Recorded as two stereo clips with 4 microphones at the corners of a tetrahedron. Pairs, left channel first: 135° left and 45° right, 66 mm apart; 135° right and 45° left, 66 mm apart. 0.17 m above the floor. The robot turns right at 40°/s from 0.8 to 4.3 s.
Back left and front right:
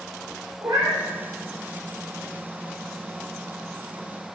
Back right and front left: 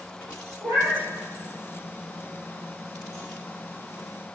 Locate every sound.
0.6 s a cat meowing: 15° right, 2.5 m; by 1.0 s 5° right, 2.5 m